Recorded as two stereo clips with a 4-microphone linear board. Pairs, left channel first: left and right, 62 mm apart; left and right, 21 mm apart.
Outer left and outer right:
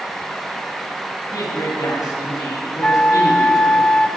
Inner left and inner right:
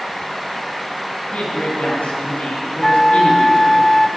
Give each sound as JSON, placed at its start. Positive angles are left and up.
{"t": 1.3, "sound": "a man speaking", "side_deg": 70, "distance_m": 4.5}
{"t": 2.8, "sound": "a flute", "side_deg": 15, "distance_m": 0.5}